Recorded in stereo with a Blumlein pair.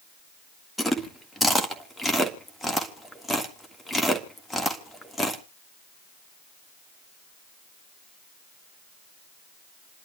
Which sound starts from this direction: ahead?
Chewing, at 0.8 s.